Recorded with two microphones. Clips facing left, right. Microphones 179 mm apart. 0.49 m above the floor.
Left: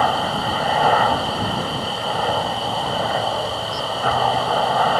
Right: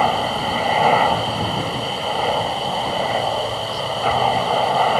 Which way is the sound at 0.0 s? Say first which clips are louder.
Right 1 dB; 10° right (ahead or behind).